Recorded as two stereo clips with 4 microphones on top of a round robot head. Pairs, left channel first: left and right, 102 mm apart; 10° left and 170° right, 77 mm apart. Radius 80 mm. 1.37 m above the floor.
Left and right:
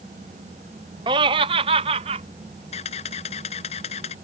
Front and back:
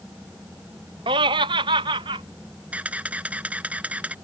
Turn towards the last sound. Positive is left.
turn(degrees=120)